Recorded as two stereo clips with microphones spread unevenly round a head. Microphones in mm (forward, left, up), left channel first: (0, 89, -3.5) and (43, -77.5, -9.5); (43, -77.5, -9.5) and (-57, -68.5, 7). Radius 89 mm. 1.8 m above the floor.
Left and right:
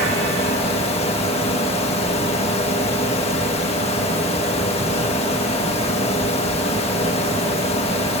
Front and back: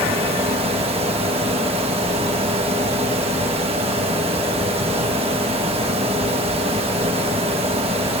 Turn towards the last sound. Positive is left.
turn(degrees=160)